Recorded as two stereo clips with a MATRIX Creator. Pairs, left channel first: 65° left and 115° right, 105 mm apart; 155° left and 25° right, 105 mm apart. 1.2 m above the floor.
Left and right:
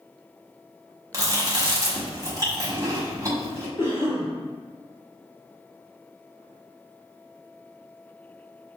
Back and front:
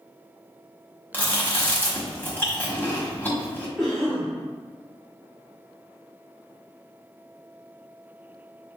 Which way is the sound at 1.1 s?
140° right.